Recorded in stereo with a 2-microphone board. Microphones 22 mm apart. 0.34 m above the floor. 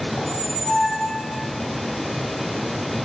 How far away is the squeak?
About 0.7 m.